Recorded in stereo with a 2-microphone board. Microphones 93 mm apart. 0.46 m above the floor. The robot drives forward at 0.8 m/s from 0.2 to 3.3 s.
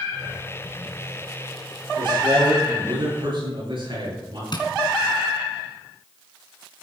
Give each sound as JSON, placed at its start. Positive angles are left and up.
{"t": 2.0, "sound": "a man speaking", "side_deg": -55, "distance_m": 8.5}
{"t": 4.5, "sound": "tapping", "side_deg": 55, "distance_m": 2.5}